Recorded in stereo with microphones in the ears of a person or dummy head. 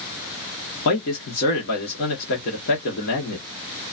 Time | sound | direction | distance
0.8 | a man speaking | 60° left (ahead or behind) | 1.5 m